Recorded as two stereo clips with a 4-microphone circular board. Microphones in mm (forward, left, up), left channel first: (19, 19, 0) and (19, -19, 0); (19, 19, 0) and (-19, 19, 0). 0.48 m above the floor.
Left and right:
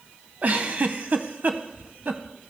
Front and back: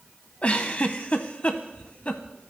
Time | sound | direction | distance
0.4 | a giggle | 50° right | 0.6 m